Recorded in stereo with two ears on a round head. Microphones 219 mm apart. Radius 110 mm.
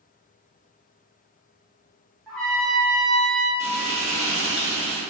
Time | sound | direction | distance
2.3 | a trumpet | centre (ahead or behind) | 0.7 m
3.6 | frying | 30° right (ahead or behind) | 0.7 m